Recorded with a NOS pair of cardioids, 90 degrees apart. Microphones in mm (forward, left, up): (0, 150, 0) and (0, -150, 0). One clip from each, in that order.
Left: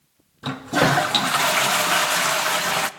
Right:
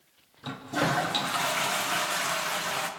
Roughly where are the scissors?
No scissors in this recording.